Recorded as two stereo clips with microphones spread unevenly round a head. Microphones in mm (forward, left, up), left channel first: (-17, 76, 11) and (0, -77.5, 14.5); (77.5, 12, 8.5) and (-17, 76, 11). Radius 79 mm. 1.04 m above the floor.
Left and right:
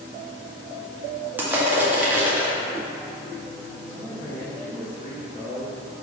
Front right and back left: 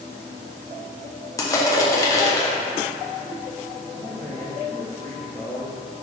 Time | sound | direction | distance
1.4 | crushing | 10° right | 0.8 m
3.8 | a man speaking | 130° left | 1.7 m